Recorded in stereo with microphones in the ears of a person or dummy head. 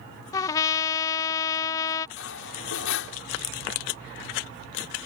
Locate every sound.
0.3 s a trumpet: 20° left (ahead or behind)
2.2 s cutlery clinking: 75° left (ahead or behind)